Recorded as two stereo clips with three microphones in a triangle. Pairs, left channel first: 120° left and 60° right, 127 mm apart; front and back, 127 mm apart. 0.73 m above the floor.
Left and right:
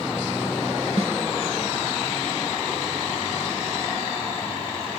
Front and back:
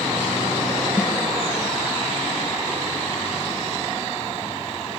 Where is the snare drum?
95° right, 1.9 m.